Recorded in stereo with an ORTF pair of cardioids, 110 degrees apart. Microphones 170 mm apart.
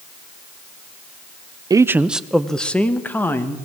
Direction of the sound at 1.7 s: 20° right.